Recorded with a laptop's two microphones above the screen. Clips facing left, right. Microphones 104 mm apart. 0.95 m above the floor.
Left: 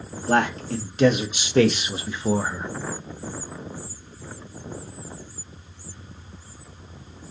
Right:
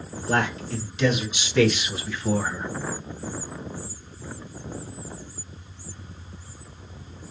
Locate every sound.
0.3 s a man speaking: 55° left (ahead or behind), 1.9 m; by 2.7 s 5° left (ahead or behind), 0.8 m